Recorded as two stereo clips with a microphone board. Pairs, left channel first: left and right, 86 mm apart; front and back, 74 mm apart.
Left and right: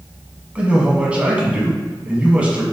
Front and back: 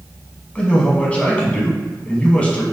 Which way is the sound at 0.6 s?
40° right.